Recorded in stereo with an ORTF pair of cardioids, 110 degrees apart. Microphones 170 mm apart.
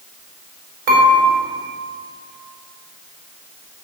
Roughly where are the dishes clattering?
Right.